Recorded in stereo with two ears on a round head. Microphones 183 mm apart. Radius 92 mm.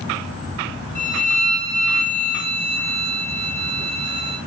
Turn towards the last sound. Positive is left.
turn(degrees=5)  # may be behind; listen again after turning